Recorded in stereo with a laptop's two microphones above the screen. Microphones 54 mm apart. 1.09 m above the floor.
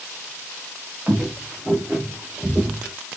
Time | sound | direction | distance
1.1 | footsteps | 20° right (ahead or behind) | 1.3 m